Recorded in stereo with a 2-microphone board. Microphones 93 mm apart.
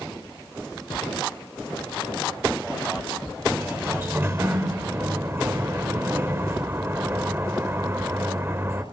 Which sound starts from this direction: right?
A sliding door, at 3.5 s.